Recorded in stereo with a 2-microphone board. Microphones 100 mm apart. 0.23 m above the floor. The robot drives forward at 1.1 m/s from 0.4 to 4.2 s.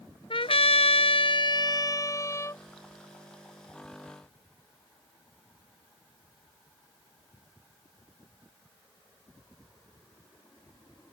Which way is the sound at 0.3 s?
65° left (ahead or behind).